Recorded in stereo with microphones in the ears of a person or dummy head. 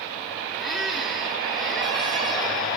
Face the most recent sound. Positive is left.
turn(degrees=0)  # may be behind; listen again after turning